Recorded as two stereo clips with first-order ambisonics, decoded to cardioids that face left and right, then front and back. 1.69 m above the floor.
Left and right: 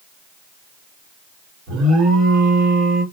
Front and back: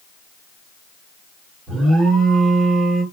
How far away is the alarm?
About 1.6 m.